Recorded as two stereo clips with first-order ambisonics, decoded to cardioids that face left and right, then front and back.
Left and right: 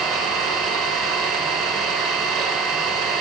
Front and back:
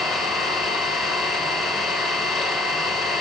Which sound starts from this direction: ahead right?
An engine running, at 0.0 s.